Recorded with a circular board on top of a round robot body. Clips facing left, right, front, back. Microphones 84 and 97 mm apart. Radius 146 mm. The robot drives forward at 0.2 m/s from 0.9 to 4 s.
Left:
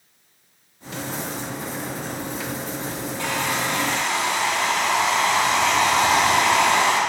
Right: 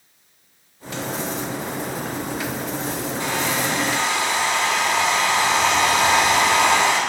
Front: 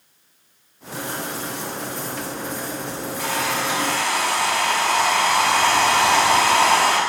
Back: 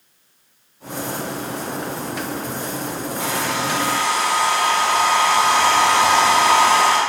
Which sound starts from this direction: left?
A hair dryer, at 3.2 s.